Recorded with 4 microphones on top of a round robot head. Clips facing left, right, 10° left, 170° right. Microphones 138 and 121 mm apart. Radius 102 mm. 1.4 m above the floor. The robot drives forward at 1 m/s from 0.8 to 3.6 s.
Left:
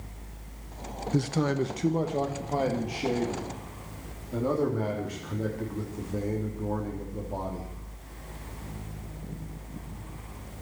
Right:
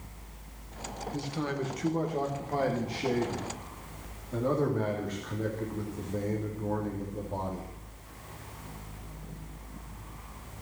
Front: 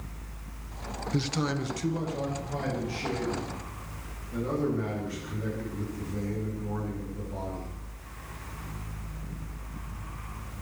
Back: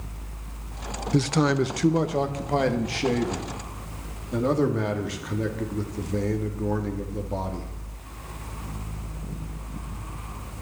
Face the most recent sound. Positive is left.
turn(degrees=170)